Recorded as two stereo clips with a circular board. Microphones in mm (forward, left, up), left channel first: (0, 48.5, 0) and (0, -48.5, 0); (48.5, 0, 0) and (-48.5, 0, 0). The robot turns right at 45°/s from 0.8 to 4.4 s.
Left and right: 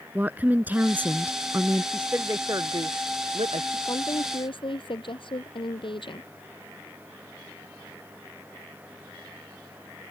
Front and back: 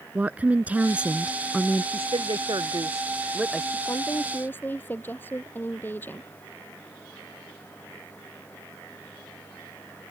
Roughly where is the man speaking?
Behind.